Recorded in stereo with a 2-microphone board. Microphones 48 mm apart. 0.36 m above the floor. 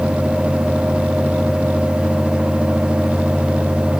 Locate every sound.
Only background noise.